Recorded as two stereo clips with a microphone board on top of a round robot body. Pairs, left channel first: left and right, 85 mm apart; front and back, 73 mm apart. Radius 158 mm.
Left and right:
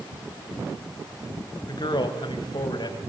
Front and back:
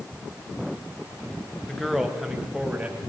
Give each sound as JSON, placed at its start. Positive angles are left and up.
{"t": 1.7, "sound": "a man speaking", "azimuth_deg": 85, "distance_m": 2.5}